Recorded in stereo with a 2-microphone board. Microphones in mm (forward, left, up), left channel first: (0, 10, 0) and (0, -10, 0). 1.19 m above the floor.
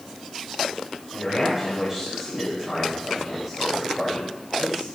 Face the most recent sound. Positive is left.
turn(degrees=-15)  # may be behind; listen again after turning